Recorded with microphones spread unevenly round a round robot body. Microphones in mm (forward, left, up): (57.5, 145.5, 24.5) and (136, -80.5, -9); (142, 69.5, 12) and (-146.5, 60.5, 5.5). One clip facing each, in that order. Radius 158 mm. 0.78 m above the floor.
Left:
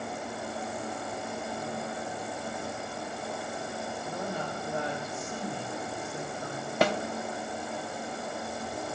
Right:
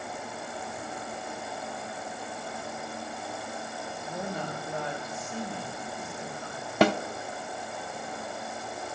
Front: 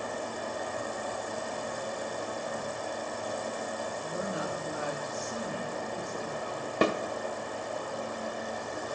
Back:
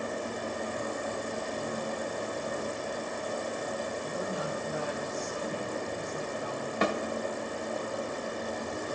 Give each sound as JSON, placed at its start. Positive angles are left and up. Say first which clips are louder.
{"t": 4.0, "sound": "a woman speaking", "louder": "right 2 dB, even", "azimuth_deg": 0, "distance_m": 1.2}
{"t": 6.8, "sound": "a snare drum", "louder": "right 4 dB, front 3 dB", "azimuth_deg": -55, "distance_m": 0.6}